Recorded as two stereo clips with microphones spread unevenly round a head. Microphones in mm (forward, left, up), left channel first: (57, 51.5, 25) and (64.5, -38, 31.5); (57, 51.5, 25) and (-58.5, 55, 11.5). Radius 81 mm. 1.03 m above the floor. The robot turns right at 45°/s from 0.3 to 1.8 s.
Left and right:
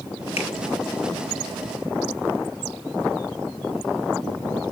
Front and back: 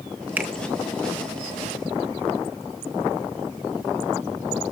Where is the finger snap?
105° left, 1.6 m; by 0.5 s 110° left, 1.6 m.